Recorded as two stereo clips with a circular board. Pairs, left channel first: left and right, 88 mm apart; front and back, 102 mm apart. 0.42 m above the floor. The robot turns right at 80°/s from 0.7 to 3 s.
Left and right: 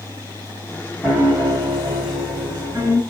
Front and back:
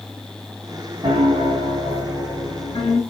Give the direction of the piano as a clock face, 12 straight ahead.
6 o'clock.